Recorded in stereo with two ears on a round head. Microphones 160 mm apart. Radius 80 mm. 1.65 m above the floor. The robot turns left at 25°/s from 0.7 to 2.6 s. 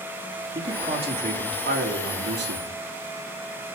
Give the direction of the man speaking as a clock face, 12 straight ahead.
1 o'clock.